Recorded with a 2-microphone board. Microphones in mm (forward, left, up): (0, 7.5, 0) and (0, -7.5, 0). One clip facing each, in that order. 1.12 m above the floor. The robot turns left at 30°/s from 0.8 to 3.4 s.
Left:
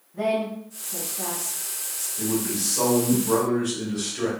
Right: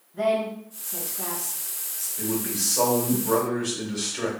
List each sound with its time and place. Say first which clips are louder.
0.1 s a woman speaking: right 1 dB; 10° right (ahead or behind), 1.3 m; by 2.1 s 25° left (ahead or behind), 1.3 m
2.2 s a man speaking: left 2 dB; 35° right, 1.2 m; by 4.3 s 75° right, 1.2 m